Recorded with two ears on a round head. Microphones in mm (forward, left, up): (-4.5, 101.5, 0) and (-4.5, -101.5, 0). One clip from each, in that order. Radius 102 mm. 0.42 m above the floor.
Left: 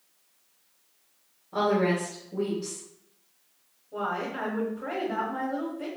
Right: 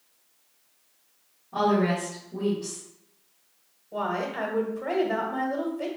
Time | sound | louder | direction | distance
1.5 | a woman speaking | right 1 dB | 10° left (ahead or behind) | 2 m
3.9 | a woman speaking | right 2 dB | 60° right (ahead or behind) | 1.6 m